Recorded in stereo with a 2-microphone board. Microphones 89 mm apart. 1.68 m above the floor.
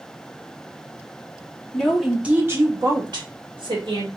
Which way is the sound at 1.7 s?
10° left (ahead or behind).